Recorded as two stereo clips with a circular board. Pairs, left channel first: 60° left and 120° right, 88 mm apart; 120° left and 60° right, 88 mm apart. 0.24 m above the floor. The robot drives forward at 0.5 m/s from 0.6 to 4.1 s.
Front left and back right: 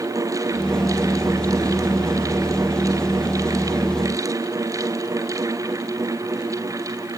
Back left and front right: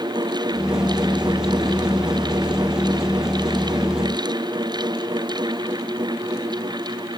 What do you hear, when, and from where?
Only background noise.